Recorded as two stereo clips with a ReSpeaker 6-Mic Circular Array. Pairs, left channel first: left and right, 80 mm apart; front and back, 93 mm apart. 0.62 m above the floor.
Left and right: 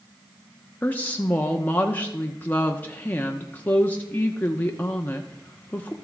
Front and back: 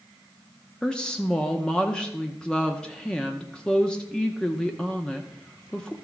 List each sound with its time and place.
0.8 s a woman speaking: 70° left, 0.8 m